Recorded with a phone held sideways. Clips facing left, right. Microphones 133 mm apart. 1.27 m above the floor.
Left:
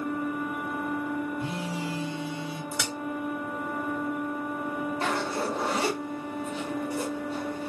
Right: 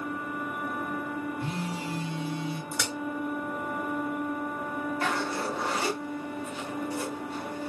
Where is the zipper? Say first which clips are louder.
Left 1 dB; 25° left (ahead or behind), 1.8 m.